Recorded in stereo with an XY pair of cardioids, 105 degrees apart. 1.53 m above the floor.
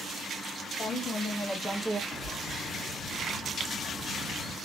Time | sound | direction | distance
0.8 | a woman speaking | 40° left | 1.2 m
2.1 | a bird | 40° left | 1.9 m